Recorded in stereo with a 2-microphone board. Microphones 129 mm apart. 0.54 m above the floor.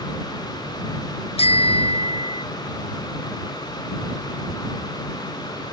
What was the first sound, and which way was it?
A bicycle bell, 50° left (ahead or behind).